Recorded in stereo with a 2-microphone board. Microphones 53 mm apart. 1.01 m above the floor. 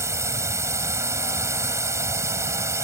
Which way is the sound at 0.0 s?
75° right (ahead or behind).